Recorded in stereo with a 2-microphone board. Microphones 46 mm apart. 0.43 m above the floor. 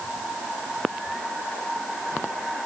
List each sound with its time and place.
Only background noise.